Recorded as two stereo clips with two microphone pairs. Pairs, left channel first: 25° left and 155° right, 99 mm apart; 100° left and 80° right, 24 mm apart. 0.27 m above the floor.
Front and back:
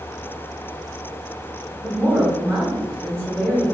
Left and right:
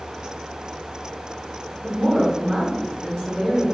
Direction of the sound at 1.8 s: 50° right.